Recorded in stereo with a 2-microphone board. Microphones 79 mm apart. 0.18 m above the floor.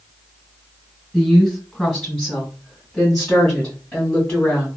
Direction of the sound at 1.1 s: 5° right (ahead or behind).